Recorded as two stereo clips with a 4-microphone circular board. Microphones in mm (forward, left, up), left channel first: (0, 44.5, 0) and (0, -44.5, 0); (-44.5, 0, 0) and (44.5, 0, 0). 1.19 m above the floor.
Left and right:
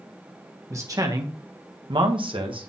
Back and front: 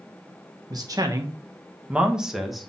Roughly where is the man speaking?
Ahead right.